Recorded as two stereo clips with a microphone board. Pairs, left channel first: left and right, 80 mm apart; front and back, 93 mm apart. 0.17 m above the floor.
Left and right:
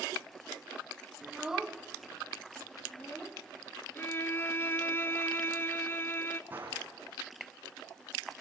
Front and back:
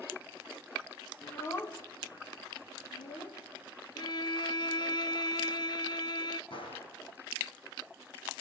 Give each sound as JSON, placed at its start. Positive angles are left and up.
{"t": 1.2, "sound": "a child speaking", "azimuth_deg": -35, "distance_m": 0.7}
{"t": 4.0, "sound": "a violin", "azimuth_deg": 30, "distance_m": 0.5}
{"t": 6.5, "sound": "a gunshot", "azimuth_deg": -20, "distance_m": 6.0}